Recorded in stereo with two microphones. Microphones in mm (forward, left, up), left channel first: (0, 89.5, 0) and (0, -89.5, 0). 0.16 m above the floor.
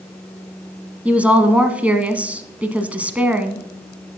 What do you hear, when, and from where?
1.1 s a woman speaking: 10° right (ahead or behind), 1.0 m